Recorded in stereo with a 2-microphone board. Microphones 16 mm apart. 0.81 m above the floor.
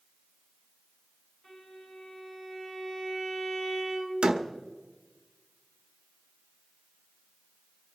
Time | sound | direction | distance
1.4 | a violin | 65° left (ahead or behind) | 7 m
4.2 | a door slam | 70° right (ahead or behind) | 1.3 m